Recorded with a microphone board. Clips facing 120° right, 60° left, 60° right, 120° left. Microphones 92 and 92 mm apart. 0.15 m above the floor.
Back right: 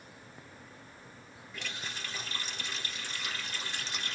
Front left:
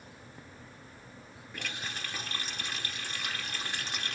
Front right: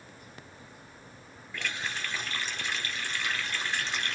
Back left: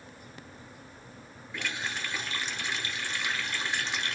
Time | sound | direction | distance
1.5 | a running tap | 45° left | 1.9 m